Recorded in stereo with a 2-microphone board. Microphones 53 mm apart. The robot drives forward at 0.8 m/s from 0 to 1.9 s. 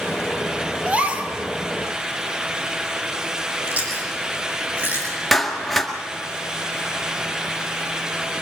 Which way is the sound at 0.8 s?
25° right (ahead or behind).